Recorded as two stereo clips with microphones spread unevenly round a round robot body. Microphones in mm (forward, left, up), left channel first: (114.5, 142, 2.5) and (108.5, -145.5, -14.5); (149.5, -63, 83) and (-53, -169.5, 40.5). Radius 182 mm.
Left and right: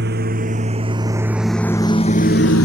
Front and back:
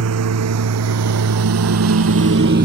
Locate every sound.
0.0 s a lawn mower: 155° right; by 2.6 s 145° left